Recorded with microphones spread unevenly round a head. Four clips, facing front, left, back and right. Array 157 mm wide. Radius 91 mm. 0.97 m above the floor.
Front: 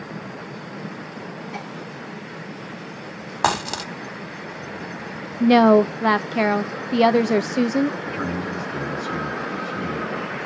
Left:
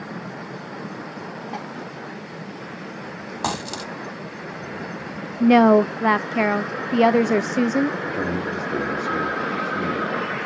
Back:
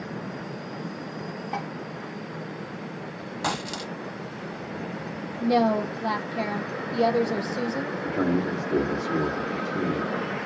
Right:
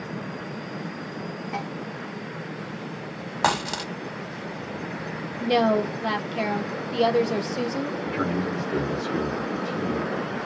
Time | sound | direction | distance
1.5 | dishes clattering | 160° left | 3 m
3.4 | a dropped coin | 10° right | 1.5 m
5.4 | a woman speaking | 20° left | 0.7 m
8.0 | a man speaking | 140° left | 3 m